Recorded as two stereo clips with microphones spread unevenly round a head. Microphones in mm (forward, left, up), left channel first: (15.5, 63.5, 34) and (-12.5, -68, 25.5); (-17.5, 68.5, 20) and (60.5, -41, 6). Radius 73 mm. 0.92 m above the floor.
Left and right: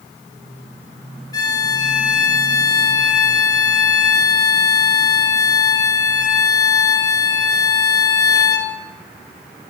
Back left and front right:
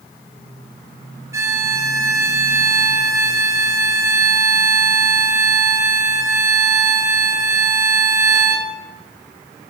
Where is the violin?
15° left, 2 m.